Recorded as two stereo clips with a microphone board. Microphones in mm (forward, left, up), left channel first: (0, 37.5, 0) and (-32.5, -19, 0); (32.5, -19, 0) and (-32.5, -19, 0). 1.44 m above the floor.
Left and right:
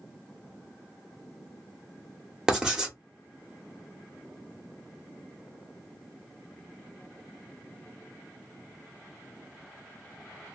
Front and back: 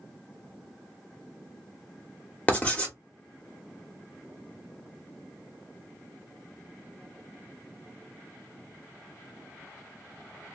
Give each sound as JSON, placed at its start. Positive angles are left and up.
{"t": 2.5, "sound": "writing", "azimuth_deg": -50, "distance_m": 1.1}